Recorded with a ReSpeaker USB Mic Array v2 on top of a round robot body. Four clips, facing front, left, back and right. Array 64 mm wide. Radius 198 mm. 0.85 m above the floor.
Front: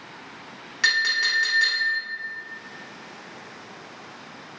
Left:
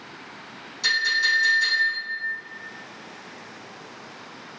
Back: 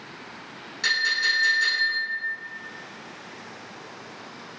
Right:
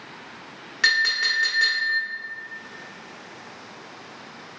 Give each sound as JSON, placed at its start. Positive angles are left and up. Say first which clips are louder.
{"t": 0.8, "sound": "a clink", "louder": "right 1 dB, front 2 dB", "azimuth_deg": -60, "distance_m": 1.0}